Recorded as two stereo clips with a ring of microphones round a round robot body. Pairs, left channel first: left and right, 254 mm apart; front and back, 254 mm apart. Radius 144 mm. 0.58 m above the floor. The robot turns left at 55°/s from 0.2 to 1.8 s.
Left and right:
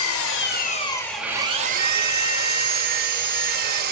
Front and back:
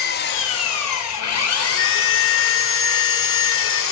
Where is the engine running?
55° left, 2.5 m; by 3.9 s 35° right, 2.5 m.